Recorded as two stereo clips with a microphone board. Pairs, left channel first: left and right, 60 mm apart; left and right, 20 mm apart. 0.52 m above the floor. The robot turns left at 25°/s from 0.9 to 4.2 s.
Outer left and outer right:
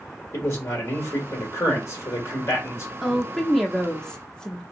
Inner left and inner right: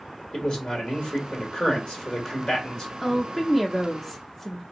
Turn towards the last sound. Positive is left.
turn(degrees=15)  # may be behind; listen again after turning